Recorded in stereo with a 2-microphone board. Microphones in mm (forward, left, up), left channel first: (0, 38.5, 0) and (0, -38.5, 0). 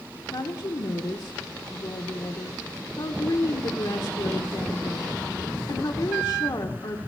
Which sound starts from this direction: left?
A woman speaking, at 0.3 s.